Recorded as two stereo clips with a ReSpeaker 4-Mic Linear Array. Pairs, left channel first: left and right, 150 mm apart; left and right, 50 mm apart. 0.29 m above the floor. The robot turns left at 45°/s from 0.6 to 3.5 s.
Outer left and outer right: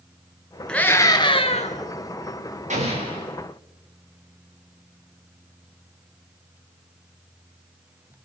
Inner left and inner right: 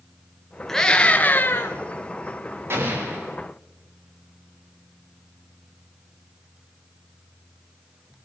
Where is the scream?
175° left, 4 m; by 1.8 s 125° left, 4 m.